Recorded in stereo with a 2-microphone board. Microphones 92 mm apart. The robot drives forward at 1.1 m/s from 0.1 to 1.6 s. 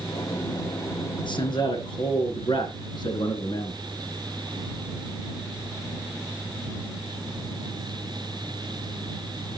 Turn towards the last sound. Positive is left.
turn(degrees=55)  # may be behind; listen again after turning